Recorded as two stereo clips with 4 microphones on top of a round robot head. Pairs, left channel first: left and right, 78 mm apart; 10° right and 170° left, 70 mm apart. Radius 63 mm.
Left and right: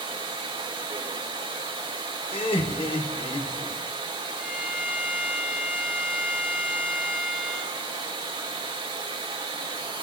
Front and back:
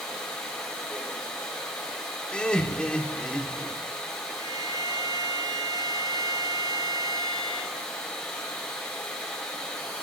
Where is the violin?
170° left, 5 m.